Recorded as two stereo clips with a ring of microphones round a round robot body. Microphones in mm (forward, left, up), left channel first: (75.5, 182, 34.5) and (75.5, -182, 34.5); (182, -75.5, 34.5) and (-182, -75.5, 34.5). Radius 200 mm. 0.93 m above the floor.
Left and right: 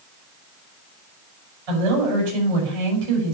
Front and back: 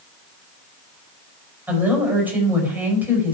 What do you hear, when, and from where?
1.7 s a woman speaking: 95° right, 5.5 m